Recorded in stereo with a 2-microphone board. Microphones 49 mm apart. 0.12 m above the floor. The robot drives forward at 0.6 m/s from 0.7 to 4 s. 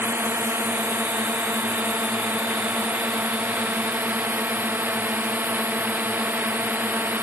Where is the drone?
50° right (ahead or behind); by 7.2 s 40° right (ahead or behind).